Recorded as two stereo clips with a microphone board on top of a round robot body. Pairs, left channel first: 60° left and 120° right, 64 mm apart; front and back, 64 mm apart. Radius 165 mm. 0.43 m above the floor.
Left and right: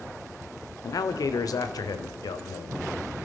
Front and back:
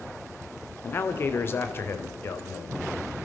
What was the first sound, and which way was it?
A man speaking, 50° left.